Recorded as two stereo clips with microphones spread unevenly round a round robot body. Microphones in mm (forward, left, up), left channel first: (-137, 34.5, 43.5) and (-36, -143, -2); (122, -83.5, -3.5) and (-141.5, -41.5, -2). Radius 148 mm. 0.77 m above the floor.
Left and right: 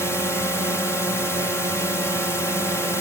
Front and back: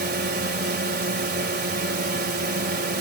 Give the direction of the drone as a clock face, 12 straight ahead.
5 o'clock.